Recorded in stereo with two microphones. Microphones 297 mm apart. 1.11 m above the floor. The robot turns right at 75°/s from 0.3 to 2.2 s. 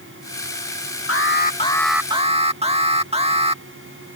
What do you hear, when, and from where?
1.1 s an alarm: 120° left; by 3.6 s 160° right